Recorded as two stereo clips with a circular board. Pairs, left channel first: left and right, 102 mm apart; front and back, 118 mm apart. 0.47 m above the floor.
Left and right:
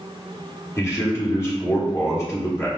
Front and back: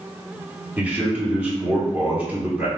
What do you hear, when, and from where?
0.8 s a man speaking: 115° left, 1.1 m